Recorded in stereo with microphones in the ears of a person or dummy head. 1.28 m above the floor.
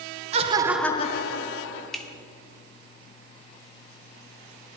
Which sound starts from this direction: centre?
A finger snap, at 1.9 s.